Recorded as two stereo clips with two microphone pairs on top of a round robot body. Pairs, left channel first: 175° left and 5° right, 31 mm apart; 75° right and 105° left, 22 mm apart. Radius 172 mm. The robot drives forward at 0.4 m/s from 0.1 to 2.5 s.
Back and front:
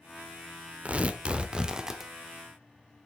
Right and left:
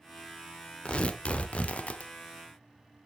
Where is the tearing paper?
45° right, 0.9 m; by 2.1 s 75° right, 0.7 m.